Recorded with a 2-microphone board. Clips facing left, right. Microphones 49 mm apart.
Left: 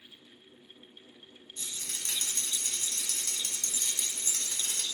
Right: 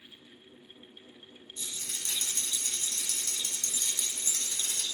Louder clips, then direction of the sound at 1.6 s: Even; 50° left (ahead or behind).